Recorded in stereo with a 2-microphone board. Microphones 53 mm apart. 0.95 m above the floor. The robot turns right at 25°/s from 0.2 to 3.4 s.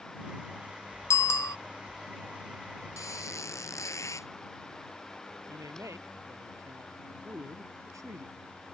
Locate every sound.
1.1 s a bicycle bell: 75° left (ahead or behind); by 1.6 s 90° left
3.0 s a squeak: 80° left; by 4.3 s 75° left (ahead or behind)
5.5 s a man speaking: 80° right